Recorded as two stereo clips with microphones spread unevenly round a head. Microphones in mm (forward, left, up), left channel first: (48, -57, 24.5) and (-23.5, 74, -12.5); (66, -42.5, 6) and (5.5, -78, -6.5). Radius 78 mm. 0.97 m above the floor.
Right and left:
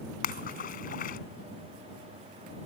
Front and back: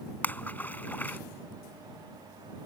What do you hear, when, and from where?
0.2 s a splash: 35° right